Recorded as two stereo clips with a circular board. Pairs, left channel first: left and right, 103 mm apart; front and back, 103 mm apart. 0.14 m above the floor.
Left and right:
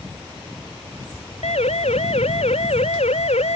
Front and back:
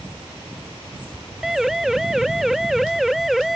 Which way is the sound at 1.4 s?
95° left.